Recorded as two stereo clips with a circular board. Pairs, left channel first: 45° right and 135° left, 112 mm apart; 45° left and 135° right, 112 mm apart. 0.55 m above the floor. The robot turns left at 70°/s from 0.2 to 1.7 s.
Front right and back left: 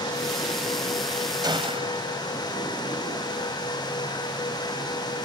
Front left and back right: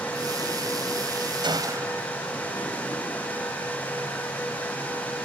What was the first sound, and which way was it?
A gunshot, 175° right.